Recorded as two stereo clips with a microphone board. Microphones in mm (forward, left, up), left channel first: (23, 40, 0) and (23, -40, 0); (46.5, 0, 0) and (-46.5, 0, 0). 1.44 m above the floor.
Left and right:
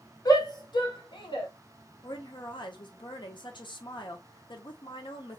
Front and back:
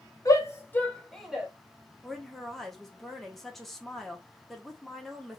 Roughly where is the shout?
Ahead left.